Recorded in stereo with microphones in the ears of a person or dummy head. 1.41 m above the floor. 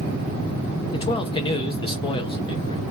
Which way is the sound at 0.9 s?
30° left (ahead or behind).